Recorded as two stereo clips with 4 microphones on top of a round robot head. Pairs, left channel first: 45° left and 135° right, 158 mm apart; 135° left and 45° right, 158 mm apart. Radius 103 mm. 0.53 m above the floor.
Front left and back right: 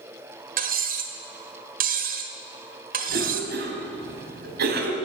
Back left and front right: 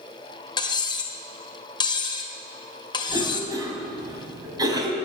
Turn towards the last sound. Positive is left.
turn(degrees=-110)